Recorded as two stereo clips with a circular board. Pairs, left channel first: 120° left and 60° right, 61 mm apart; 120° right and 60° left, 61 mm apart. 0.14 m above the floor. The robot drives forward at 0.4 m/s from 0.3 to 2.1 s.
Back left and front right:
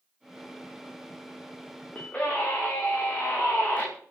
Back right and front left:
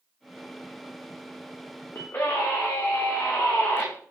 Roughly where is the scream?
Behind.